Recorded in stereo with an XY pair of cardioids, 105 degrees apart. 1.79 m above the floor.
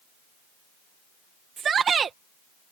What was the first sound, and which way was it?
A shout, 50° right.